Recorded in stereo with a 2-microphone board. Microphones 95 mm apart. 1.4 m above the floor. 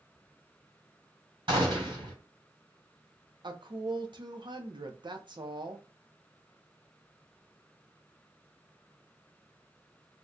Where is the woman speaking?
55° right (ahead or behind), 0.7 m.